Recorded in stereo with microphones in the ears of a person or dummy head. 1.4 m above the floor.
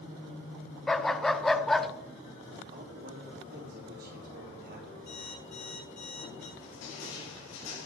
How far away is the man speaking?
About 4.5 m.